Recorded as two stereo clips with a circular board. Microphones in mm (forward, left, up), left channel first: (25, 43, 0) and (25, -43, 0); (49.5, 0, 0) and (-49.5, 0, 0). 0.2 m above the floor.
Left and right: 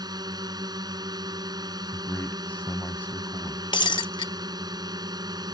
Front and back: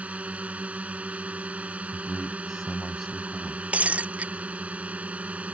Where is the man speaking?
85° left.